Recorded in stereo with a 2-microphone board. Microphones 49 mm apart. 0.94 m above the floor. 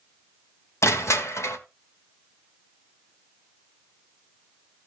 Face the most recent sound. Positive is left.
turn(degrees=70)  # may be behind; listen again after turning